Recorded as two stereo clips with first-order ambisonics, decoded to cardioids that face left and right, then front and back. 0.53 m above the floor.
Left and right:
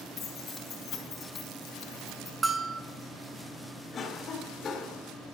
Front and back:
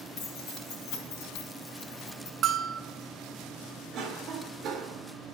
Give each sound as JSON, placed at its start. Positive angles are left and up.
{"t": 0.2, "sound": "keys jangling", "azimuth_deg": 35, "distance_m": 3.0}
{"t": 2.4, "sound": "a bell", "azimuth_deg": -155, "distance_m": 0.6}
{"t": 3.9, "sound": "a cough", "azimuth_deg": 145, "distance_m": 1.7}